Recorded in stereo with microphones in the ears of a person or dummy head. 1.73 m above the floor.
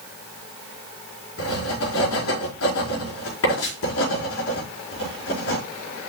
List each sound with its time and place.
1.4 s writing: 85° left, 5 m